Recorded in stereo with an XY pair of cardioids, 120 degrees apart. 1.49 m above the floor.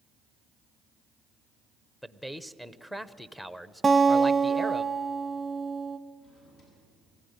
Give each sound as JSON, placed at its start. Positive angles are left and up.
{"t": 2.0, "sound": "a man speaking", "azimuth_deg": 5, "distance_m": 0.9}
{"t": 3.8, "sound": "a guitar", "azimuth_deg": -20, "distance_m": 0.8}
{"t": 6.2, "sound": "a drawer", "azimuth_deg": 60, "distance_m": 9.0}